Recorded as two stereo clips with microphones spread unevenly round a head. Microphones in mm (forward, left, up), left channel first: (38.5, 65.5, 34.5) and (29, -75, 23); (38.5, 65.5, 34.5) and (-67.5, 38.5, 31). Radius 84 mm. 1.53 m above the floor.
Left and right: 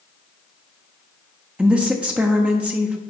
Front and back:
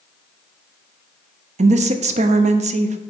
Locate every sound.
1.6 s a woman speaking: 175° right, 0.7 m